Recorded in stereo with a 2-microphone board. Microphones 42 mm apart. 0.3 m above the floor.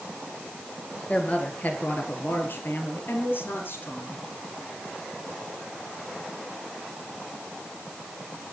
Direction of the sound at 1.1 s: 35° left (ahead or behind).